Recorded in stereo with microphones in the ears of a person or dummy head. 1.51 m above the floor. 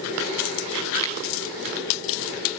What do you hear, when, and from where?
1.0 s a finger snap: 20° left (ahead or behind), 0.8 m